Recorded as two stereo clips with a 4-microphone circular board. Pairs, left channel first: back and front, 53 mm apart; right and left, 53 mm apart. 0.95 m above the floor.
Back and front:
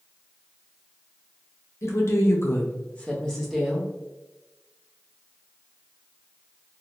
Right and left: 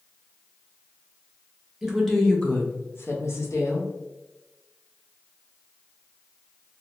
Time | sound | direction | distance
1.8 | a woman speaking | 170° left | 0.9 m